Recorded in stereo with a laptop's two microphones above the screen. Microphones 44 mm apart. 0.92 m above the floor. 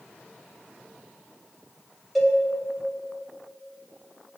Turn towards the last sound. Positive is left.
turn(degrees=0)  # may be behind; listen again after turning